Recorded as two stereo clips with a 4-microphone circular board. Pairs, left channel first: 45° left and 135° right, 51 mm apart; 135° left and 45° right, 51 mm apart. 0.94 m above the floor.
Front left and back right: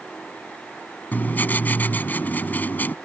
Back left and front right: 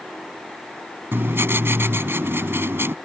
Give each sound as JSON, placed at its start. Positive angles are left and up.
{"t": 1.1, "sound": "writing", "azimuth_deg": -10}